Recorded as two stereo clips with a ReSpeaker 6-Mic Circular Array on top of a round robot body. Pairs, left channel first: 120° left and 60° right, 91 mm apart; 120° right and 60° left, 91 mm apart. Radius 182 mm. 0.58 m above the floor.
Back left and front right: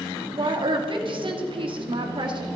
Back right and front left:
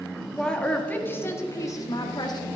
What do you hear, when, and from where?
0.4 s a woman speaking: 35° right, 1.5 m; by 2.5 s 85° right, 1.7 m